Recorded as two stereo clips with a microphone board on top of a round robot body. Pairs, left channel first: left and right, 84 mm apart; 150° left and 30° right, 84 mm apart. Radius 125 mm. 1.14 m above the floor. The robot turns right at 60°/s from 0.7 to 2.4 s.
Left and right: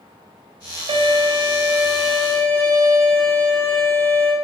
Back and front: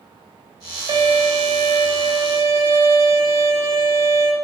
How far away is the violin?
About 1.8 m.